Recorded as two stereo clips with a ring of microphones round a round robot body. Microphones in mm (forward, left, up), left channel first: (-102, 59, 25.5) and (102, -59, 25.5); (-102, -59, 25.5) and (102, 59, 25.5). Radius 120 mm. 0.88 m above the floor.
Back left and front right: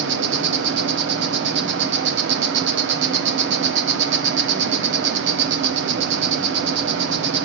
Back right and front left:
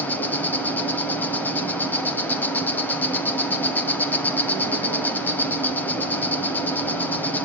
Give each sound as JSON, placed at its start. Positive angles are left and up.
{"t": 0.0, "sound": "an insect", "azimuth_deg": -70, "distance_m": 1.1}